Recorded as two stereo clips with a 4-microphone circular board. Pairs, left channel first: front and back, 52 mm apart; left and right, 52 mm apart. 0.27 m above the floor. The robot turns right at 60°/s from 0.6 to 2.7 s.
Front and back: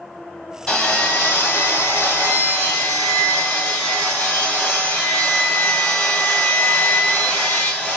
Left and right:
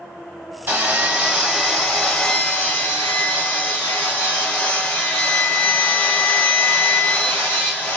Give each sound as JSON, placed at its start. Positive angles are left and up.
{"t": 0.7, "sound": "sawing", "azimuth_deg": -70, "distance_m": 1.6}